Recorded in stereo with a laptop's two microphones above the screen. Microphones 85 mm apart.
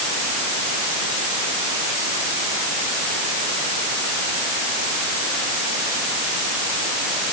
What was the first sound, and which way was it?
Only background noise.